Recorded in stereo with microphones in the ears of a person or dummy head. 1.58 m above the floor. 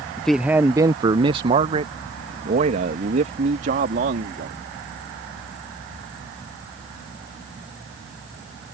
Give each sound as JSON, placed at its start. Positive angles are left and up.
{"t": 0.2, "sound": "a man speaking", "side_deg": 10}